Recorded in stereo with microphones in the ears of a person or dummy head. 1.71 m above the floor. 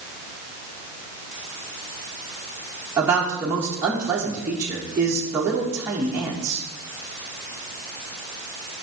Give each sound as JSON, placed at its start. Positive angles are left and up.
{"t": 3.0, "sound": "a man speaking", "side_deg": -10, "distance_m": 0.6}